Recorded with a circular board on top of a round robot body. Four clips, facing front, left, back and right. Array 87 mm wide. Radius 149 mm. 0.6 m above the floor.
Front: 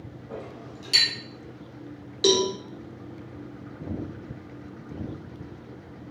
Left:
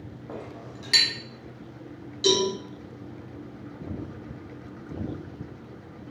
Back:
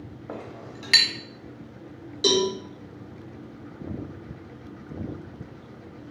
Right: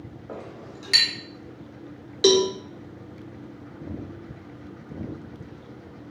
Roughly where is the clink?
Behind.